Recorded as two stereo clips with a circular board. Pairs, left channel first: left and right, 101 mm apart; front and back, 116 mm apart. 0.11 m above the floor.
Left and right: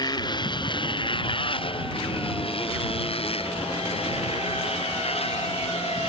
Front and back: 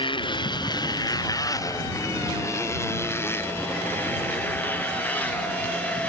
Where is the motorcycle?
45° left; by 6.1 s 80° left.